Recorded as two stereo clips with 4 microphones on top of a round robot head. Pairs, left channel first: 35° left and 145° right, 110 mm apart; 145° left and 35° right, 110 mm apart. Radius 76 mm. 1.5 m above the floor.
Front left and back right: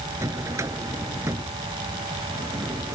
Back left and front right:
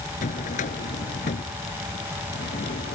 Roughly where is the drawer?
Behind left.